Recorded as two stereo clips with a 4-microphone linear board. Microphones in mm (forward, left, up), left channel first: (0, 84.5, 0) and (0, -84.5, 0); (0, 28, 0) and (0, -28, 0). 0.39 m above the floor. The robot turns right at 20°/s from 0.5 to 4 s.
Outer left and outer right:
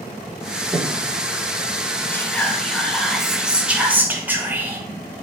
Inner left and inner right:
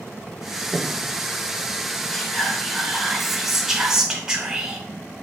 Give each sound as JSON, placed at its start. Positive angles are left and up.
{"t": 0.7, "sound": "breathing", "side_deg": -25, "distance_m": 0.6}
{"t": 2.1, "sound": "whispering", "azimuth_deg": 160, "distance_m": 1.3}